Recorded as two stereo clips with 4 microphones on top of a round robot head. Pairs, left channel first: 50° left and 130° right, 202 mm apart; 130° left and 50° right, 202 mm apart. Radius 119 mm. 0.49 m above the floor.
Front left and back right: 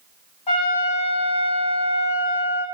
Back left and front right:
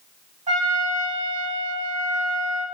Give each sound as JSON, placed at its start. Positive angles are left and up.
{"t": 0.5, "sound": "a trumpet", "azimuth_deg": -5, "distance_m": 1.4}